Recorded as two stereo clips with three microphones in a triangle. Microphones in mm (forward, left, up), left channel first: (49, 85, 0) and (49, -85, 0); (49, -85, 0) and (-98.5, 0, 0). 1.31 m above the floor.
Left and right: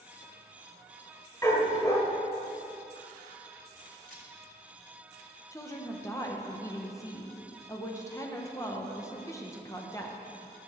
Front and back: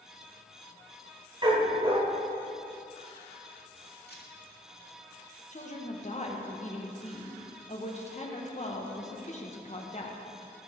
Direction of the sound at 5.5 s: 15° left.